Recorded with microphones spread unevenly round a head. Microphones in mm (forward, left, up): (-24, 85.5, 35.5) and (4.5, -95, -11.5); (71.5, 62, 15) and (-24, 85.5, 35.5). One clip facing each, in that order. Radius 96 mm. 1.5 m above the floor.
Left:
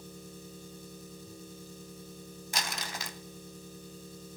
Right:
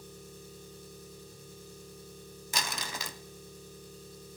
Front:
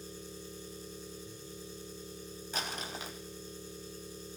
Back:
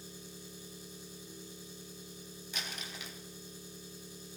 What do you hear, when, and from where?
0.0 s an engine running: 90° left, 7 m
2.5 s crumpling: 85° right, 0.7 m